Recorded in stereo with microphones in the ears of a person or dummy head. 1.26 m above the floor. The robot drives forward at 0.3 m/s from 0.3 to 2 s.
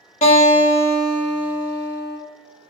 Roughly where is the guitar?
Left.